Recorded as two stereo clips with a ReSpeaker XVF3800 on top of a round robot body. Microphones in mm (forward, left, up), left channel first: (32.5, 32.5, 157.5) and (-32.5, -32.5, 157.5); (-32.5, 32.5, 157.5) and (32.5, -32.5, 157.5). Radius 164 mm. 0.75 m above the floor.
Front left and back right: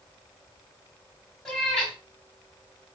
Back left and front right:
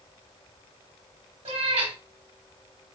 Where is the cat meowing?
40° right, 1.2 m.